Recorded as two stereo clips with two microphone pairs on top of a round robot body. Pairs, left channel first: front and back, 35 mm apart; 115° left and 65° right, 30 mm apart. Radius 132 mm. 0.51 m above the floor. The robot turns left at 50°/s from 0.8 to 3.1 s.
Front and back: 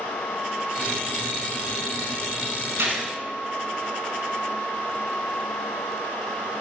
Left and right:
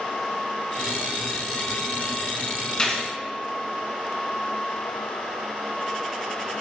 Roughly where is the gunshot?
Behind.